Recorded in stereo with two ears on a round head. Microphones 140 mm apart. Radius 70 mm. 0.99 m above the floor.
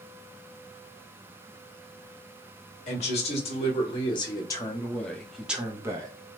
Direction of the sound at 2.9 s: 45° left (ahead or behind).